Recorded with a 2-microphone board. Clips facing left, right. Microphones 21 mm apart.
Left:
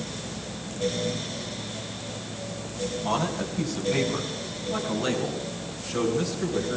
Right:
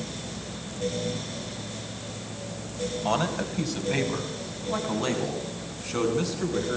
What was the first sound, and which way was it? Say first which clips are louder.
A man speaking: right 1 dB; 45° right (ahead or behind).